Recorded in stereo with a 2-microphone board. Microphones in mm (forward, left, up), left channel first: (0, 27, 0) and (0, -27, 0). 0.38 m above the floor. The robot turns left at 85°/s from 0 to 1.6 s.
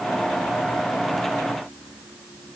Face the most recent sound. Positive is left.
No sound to turn to.